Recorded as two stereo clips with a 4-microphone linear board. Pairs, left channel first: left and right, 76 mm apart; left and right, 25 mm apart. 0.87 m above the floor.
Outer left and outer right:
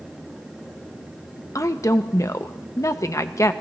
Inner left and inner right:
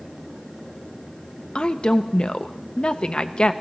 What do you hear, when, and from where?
1.6 s a woman speaking: 40° left (ahead or behind), 0.6 m